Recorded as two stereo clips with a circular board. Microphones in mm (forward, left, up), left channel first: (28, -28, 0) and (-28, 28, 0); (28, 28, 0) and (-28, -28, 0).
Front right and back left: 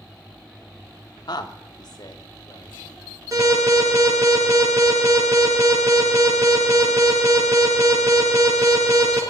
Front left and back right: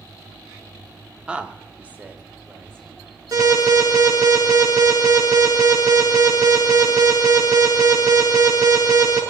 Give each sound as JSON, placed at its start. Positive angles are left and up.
{"t": 1.3, "sound": "a woman speaking", "azimuth_deg": -60, "distance_m": 1.1}
{"t": 3.3, "sound": "an alarm", "azimuth_deg": 180, "distance_m": 6.5}